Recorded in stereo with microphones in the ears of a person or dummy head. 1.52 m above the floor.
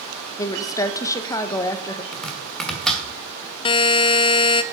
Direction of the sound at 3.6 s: 30° left (ahead or behind).